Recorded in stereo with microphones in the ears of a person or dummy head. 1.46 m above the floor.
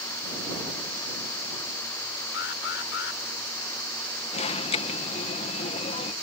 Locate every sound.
2.3 s an alarm: 75° left (ahead or behind)
4.3 s an alarm: 30° left (ahead or behind)